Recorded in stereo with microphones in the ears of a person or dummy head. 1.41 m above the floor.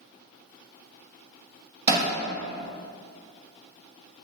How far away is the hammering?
About 1.3 m.